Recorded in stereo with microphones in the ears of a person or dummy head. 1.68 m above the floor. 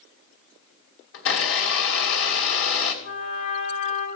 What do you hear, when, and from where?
1.1 s a blender: 65° left (ahead or behind), 2.5 m
3.0 s a trumpet: 40° left (ahead or behind), 4.5 m